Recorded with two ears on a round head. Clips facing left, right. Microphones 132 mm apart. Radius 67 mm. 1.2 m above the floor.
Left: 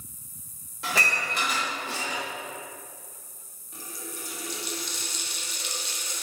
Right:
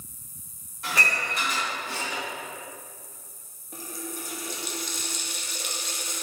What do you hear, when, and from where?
0.8 s dishes clattering: 65° left (ahead or behind), 1.4 m
3.7 s a running tap: 45° right (ahead or behind), 0.6 m